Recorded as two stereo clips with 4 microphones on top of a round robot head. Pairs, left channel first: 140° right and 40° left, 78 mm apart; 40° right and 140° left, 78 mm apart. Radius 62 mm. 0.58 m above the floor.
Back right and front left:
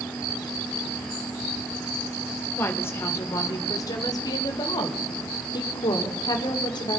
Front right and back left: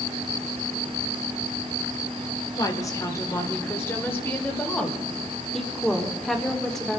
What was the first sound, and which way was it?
A woman speaking, 80° right.